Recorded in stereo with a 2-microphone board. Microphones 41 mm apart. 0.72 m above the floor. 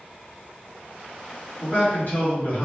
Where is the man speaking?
60° left (ahead or behind), 1.6 m.